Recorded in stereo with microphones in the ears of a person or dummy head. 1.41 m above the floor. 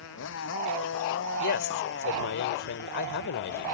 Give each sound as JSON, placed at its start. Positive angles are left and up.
{"t": 0.0, "sound": "a motorcycle", "side_deg": 75}
{"t": 1.4, "sound": "a woman speaking", "side_deg": 65}